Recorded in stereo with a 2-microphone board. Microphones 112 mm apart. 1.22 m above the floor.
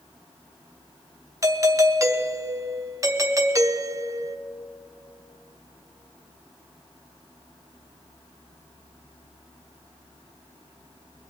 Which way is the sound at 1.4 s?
30° right (ahead or behind).